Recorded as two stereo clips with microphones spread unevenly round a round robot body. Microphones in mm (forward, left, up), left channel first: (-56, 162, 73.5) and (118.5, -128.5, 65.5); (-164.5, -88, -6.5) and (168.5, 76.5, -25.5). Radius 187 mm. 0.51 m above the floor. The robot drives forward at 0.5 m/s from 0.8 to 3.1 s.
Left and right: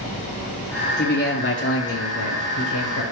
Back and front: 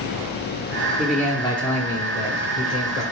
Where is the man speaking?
105° left, 1.0 m; by 3.0 s 160° left, 1.5 m.